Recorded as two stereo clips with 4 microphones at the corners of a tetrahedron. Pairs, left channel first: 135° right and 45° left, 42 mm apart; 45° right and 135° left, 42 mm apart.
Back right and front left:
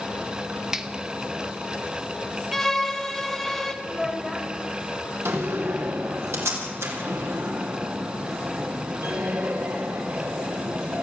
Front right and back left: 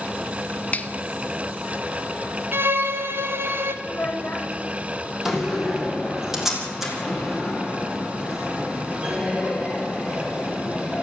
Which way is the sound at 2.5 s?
140° left.